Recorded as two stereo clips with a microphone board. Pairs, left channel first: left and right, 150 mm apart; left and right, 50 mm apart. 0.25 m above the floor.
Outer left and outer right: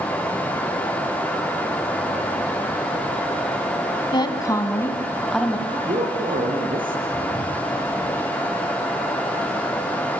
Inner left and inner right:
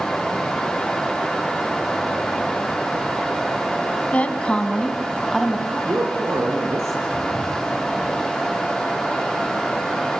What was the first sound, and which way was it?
A woman speaking, 30° left (ahead or behind).